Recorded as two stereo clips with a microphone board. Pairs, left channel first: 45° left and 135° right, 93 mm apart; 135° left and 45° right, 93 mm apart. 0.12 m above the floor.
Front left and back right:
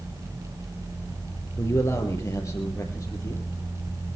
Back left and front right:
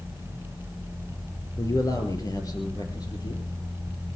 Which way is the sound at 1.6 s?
95° left.